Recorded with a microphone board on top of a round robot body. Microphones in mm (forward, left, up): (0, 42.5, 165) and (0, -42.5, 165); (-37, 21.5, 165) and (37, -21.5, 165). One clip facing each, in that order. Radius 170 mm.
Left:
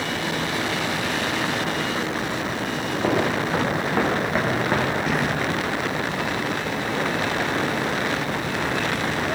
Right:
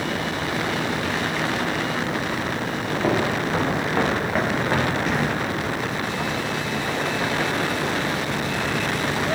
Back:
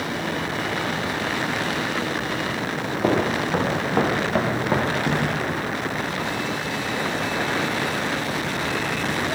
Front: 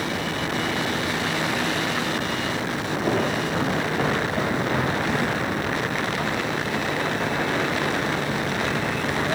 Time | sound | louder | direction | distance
3.0 | footsteps | even, back 3 dB | 175° left | 7 m